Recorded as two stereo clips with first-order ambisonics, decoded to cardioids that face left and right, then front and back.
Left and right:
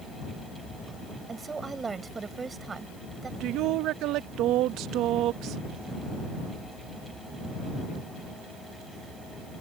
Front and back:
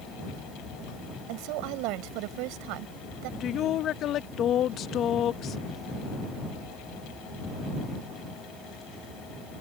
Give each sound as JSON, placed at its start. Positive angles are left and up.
{"t": 1.3, "sound": "a woman speaking", "azimuth_deg": -165}
{"t": 3.4, "sound": "a woman speaking", "azimuth_deg": -50}